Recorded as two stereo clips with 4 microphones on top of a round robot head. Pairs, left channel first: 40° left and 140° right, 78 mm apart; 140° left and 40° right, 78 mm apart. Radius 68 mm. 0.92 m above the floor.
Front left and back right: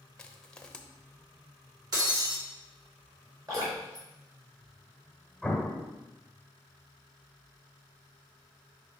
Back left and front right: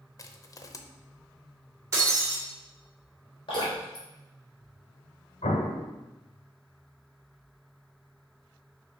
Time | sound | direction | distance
0.2 | crushing | 120° left | 0.8 m
1.9 | breaking glass | 95° right | 2 m
3.5 | dripping | 170° left | 4 m
5.4 | an explosion | 135° left | 1.0 m